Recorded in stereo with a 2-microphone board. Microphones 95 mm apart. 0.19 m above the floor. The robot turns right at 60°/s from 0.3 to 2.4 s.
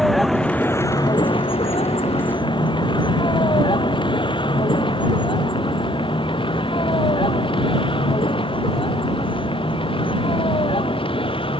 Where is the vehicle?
Centre (ahead or behind); by 11.6 s 70° left (ahead or behind).